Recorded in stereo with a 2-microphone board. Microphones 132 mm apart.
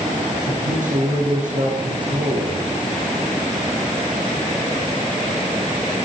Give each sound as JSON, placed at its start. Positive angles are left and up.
{"t": 0.5, "sound": "a man speaking", "side_deg": -70, "distance_m": 5.0}